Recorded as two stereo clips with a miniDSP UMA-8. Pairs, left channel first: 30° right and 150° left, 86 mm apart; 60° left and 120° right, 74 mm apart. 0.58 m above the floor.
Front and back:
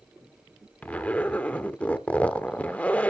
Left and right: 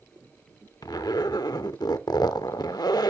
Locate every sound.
0.8 s a zipper: 45° left, 0.6 m